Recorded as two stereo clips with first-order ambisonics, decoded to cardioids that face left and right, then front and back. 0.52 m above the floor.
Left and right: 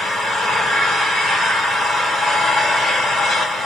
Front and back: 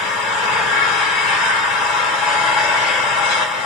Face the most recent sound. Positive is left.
turn(degrees=-5)